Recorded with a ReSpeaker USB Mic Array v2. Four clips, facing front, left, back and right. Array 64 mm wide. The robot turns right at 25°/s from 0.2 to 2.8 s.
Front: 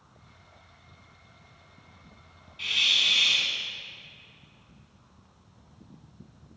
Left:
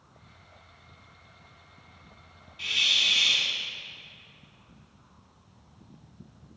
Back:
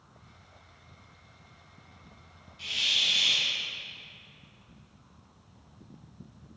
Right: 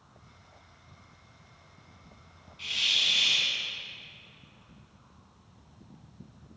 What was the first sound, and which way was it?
A hiss, 15° left.